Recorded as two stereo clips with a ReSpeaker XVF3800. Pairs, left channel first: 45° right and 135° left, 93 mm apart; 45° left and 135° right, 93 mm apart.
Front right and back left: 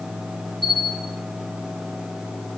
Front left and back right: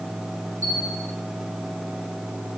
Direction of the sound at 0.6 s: 15° right.